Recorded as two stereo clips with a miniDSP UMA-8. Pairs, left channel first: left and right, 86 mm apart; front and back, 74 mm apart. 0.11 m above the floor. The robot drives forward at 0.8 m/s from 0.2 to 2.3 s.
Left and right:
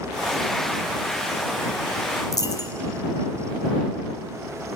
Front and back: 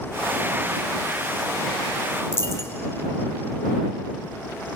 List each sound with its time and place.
2.3 s a dropped coin: 50° left, 0.9 m